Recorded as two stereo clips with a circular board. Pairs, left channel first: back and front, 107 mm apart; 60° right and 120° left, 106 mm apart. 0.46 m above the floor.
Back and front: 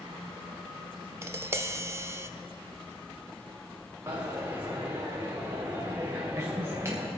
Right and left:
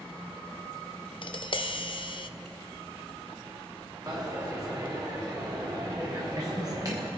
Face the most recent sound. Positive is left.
turn(degrees=65)